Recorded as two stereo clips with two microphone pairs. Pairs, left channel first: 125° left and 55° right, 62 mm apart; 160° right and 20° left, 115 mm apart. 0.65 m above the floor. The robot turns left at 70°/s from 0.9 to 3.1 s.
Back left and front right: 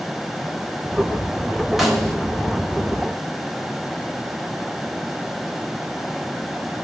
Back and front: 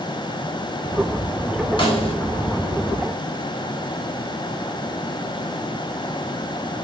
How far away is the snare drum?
About 1.3 m.